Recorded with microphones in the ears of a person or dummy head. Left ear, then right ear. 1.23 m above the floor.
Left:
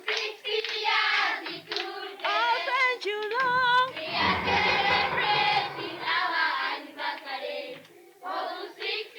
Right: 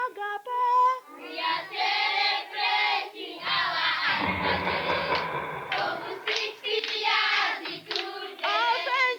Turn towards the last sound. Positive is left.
turn(degrees=-50)  # may be behind; listen again after turning